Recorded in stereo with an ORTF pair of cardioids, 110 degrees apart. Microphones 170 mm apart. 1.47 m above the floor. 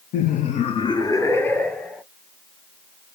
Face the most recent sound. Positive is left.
turn(degrees=5)